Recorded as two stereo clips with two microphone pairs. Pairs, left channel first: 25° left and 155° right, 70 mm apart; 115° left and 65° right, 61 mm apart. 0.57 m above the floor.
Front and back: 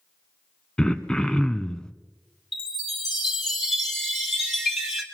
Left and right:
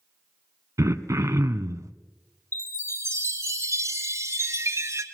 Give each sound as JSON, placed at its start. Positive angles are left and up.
{"t": 0.8, "sound": "throat clearing", "azimuth_deg": -50, "distance_m": 0.9}
{"t": 2.5, "sound": "a chime", "azimuth_deg": -65, "distance_m": 2.5}